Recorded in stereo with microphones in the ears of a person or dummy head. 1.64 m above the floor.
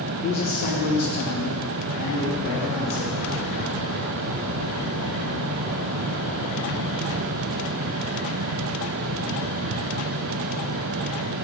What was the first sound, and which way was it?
A man speaking, 15° left (ahead or behind).